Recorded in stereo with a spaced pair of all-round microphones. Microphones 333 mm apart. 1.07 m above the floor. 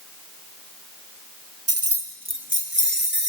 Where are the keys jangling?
45° right (ahead or behind), 0.6 m; by 3.3 s 30° right (ahead or behind), 1.8 m.